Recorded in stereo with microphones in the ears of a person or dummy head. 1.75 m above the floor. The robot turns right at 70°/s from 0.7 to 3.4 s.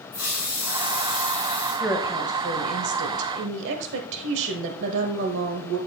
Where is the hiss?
95° left, 5.5 m; by 1.9 s 175° left, 5.5 m.